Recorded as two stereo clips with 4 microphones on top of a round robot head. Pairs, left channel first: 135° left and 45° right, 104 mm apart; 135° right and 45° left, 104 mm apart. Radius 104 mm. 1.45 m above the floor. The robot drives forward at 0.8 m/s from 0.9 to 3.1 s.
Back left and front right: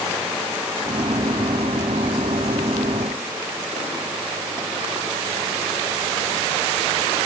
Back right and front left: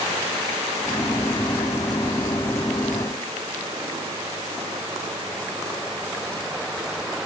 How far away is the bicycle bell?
No bicycle bell in this recording.